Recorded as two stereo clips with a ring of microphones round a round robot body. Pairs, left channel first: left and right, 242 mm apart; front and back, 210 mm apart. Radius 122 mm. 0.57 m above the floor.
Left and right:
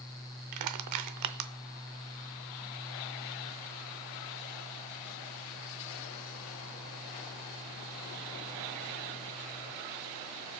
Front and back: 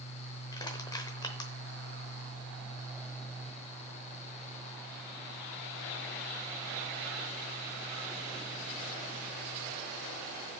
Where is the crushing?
75° right, 0.7 m.